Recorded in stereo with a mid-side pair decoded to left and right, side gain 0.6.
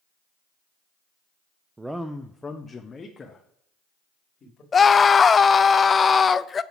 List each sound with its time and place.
1.8 s a man speaking: 15° right, 0.5 m; by 4.6 s 40° left, 2 m
4.7 s a scream: 30° left, 0.5 m